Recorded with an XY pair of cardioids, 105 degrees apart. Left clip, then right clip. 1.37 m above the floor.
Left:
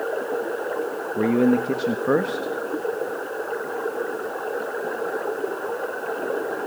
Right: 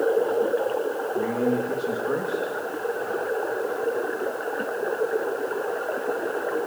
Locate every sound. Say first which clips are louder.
1.2 s a man speaking: left 6 dB; 65° left, 1.4 m